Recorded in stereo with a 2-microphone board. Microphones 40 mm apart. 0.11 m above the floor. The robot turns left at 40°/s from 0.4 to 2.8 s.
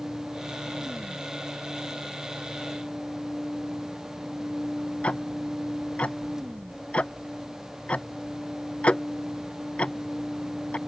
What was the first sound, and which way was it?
Ticking, 30° left (ahead or behind).